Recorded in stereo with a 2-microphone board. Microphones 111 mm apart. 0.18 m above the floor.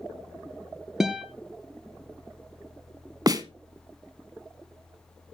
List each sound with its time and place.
1.0 s a guitar: 5° right (ahead or behind), 1.9 m
3.3 s a snare drum: 35° right (ahead or behind), 1.1 m